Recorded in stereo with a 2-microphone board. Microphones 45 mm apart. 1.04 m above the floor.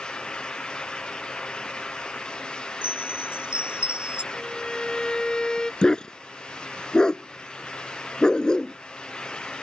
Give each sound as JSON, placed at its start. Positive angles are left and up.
{"t": 2.8, "sound": "a chime", "side_deg": -25}
{"t": 4.3, "sound": "a violin", "side_deg": 15}
{"t": 5.8, "sound": "a dog barking", "side_deg": 15}